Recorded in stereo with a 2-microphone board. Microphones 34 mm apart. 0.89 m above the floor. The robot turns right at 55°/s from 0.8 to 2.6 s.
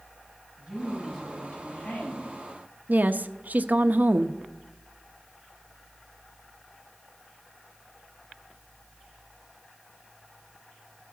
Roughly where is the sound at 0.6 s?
Ahead.